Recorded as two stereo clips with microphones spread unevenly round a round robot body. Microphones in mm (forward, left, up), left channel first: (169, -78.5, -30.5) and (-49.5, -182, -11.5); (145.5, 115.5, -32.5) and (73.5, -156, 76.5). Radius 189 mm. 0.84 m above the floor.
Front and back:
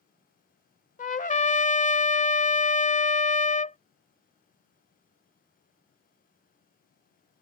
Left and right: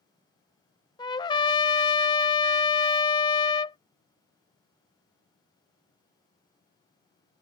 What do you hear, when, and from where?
1.0 s a trumpet: 20° right